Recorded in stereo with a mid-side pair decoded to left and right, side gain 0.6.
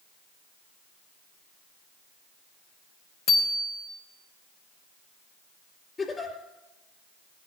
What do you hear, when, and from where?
3.3 s a bicycle bell: 50° left, 4 m
6.0 s a giggle: 25° left, 3.5 m